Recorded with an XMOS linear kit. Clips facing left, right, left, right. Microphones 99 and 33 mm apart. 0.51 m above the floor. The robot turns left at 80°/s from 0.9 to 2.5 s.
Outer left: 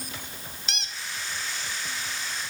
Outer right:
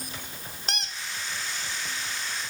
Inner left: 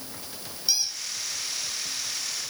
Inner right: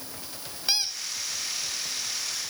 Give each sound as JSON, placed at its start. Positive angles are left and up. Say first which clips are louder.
{"t": 0.7, "sound": "a squeak", "louder": "outer right 4 dB, even", "side_deg": -45, "distance_m": 0.7}